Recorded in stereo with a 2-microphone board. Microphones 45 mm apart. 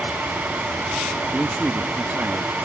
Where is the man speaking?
20° right (ahead or behind); by 2.5 s 50° right (ahead or behind).